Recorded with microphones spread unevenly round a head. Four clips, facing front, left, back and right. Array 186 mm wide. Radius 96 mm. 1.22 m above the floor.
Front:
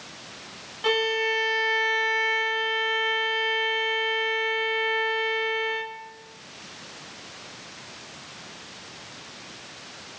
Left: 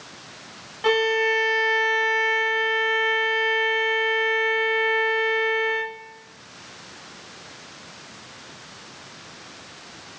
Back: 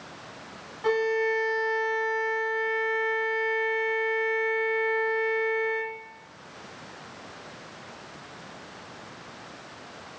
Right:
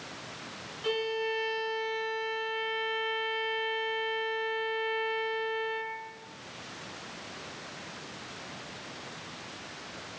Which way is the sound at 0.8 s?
85° left.